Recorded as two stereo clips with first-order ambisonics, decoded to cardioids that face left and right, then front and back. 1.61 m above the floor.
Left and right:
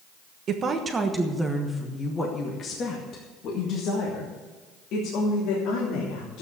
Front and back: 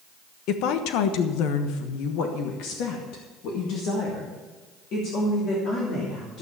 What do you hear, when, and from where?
0.5 s a woman speaking: 35° right, 1.2 m; by 6.4 s 55° left, 3.5 m